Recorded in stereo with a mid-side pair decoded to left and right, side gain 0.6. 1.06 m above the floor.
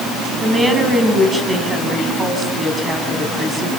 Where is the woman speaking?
20° right, 7.5 m.